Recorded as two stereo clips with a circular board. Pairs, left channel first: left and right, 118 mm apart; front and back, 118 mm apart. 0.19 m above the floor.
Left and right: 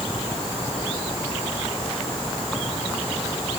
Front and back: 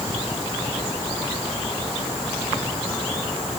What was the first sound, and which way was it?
Only background noise.